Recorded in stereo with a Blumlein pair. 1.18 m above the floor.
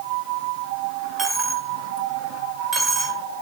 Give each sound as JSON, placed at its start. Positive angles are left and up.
{"t": 1.2, "sound": "a dropped coin", "azimuth_deg": -15, "distance_m": 2.0}